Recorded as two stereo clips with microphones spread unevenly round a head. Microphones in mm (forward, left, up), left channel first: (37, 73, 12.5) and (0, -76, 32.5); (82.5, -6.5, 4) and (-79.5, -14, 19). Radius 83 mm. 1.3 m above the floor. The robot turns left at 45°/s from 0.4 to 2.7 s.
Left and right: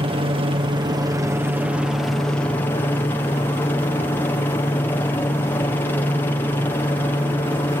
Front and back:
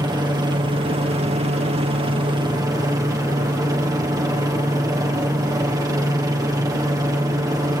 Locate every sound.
0.0 s a helicopter: 130° right; by 7.8 s 125° left